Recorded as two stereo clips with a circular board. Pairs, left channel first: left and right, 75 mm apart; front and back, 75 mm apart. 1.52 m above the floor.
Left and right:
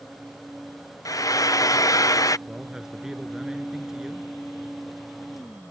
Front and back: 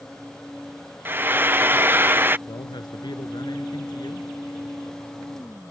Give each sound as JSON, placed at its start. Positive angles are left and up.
{"t": 1.1, "sound": "frying", "azimuth_deg": 120}
{"t": 2.5, "sound": "a man speaking", "azimuth_deg": -5}